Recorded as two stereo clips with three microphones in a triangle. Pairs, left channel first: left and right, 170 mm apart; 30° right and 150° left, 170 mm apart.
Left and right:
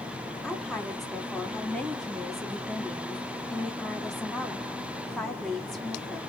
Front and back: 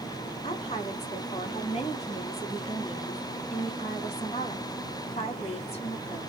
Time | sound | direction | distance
0.4 | a woman speaking | straight ahead | 1.5 m